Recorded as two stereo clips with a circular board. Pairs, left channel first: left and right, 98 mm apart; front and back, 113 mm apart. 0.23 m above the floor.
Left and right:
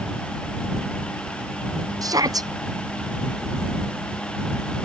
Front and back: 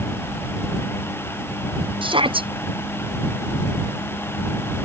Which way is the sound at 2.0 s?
140° right.